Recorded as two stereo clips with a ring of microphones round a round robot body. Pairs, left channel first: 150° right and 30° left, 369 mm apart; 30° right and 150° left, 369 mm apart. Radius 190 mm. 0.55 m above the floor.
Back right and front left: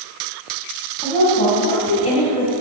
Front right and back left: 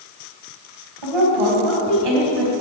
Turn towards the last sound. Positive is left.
turn(degrees=135)